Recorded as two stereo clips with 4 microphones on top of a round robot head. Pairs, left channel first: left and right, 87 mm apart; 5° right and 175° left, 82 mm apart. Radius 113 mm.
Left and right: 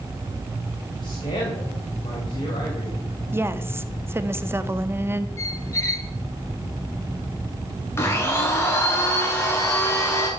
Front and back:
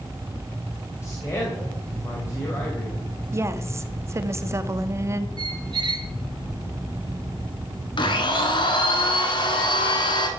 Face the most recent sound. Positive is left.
turn(degrees=25)